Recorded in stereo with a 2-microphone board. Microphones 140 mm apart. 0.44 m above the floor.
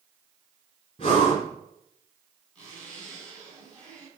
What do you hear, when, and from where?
1.0 s breathing: 40° left (ahead or behind), 2.5 m
2.5 s a zipper: 5° left (ahead or behind), 4 m